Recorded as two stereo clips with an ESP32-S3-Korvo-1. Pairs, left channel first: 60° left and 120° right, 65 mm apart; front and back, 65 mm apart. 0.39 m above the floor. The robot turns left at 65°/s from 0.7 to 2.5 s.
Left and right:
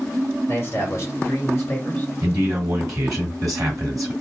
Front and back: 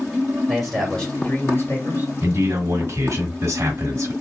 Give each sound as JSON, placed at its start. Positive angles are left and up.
{"t": 0.5, "sound": "a man speaking", "azimuth_deg": 90, "distance_m": 1.7}
{"t": 2.2, "sound": "a man speaking", "azimuth_deg": -120, "distance_m": 2.5}